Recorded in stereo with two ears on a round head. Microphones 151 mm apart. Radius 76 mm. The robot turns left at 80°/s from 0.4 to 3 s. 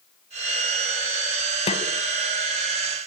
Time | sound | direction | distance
1.7 | a snare drum | 35° left (ahead or behind) | 2.5 m